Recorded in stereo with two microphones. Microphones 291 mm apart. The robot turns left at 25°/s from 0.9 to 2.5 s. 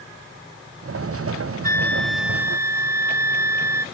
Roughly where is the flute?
Centre.